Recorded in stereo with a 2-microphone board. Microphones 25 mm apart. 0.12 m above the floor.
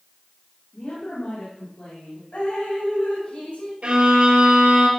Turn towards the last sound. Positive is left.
turn(degrees=-60)  # may be behind; listen again after turning